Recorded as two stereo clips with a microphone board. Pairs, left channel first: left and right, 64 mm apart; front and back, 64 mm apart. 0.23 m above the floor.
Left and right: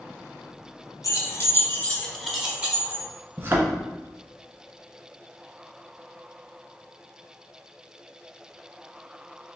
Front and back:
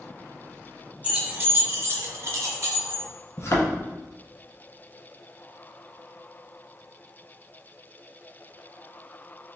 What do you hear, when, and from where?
1.0 s keys jangling: 115° left, 1.4 m; by 3.1 s 140° right, 1.5 m
3.4 s a thud: 40° right, 1.2 m